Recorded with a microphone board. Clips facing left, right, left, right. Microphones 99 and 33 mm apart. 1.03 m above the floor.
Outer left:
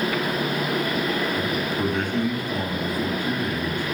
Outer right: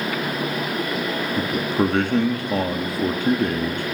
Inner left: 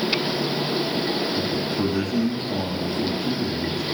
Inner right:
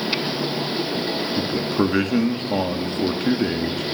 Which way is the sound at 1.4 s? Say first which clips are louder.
Outer right 3 dB, inner right 3 dB; 70° right (ahead or behind).